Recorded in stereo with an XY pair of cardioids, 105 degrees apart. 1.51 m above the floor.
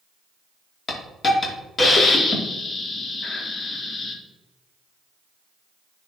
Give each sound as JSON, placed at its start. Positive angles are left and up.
{"t": 0.9, "sound": "a hiss", "azimuth_deg": 35, "distance_m": 1.9}